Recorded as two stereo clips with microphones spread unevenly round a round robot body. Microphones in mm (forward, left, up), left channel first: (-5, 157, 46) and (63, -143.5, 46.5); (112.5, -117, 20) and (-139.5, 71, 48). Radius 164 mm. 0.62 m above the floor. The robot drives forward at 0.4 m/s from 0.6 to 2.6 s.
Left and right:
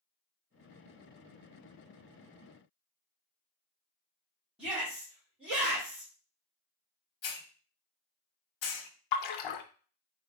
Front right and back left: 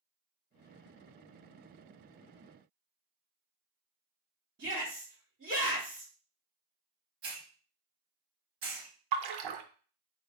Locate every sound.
4.6 s a shout: 165° right, 2 m
7.2 s a hiss: 90° left, 0.7 m
9.1 s a splash: 120° left, 0.5 m